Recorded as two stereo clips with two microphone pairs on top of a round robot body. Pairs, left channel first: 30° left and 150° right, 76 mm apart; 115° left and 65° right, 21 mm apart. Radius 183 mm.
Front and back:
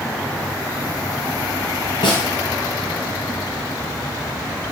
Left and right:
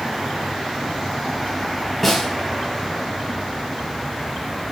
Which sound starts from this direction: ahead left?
A snare drum, at 2.0 s.